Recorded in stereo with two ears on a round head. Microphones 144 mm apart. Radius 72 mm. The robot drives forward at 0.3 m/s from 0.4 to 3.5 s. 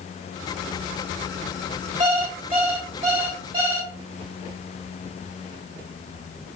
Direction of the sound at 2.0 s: 40° right (ahead or behind).